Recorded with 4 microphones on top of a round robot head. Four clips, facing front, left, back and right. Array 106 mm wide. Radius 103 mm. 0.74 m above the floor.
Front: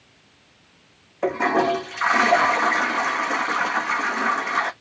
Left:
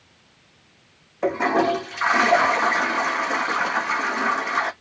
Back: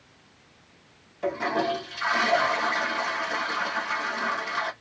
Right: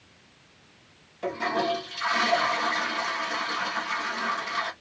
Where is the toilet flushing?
40° left, 0.8 m.